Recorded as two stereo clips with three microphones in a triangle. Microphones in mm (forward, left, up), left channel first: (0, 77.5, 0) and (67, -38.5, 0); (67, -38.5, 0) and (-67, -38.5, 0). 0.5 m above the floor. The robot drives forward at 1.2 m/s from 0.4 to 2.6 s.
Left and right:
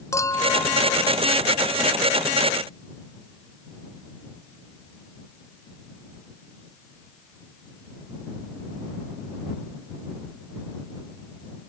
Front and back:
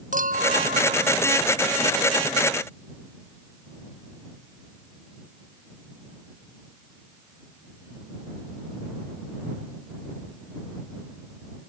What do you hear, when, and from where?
0.1 s a clink: 170° right